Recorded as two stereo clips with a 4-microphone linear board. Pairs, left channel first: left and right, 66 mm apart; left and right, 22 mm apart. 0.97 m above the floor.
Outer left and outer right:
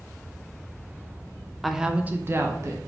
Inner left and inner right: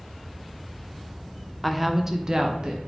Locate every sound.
1.6 s a woman speaking: centre (ahead or behind), 0.5 m; by 2.8 s 50° right (ahead or behind), 0.7 m